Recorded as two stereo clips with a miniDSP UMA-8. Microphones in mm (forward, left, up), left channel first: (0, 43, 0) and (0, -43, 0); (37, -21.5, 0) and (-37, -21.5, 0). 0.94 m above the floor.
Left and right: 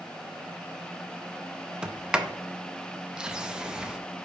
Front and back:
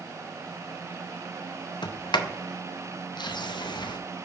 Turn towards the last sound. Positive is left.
turn(degrees=-10)